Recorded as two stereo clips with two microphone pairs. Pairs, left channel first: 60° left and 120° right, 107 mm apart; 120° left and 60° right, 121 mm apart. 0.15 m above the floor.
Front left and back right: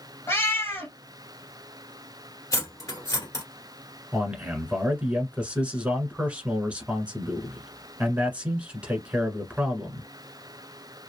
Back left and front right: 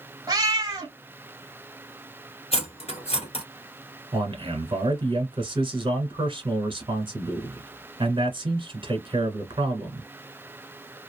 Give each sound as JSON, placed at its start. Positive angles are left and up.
{"t": 0.3, "sound": "a cat meowing", "azimuth_deg": 0, "distance_m": 1.2}
{"t": 2.5, "sound": "cutlery clinking", "azimuth_deg": 110, "distance_m": 1.4}
{"t": 4.1, "sound": "a man speaking", "azimuth_deg": -45, "distance_m": 1.4}